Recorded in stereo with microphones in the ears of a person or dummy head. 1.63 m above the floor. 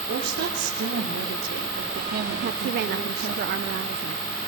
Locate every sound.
0.1 s a woman speaking: 50° right (ahead or behind), 4 m
2.4 s a woman speaking: 40° right (ahead or behind), 0.7 m